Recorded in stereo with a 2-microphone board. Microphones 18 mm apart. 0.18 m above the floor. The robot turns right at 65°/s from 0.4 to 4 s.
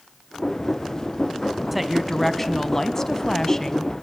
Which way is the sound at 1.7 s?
5° right (ahead or behind).